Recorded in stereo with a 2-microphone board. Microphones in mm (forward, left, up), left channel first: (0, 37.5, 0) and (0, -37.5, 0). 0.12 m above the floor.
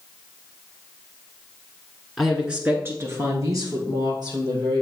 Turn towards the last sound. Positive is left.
turn(degrees=-65)  # may be behind; listen again after turning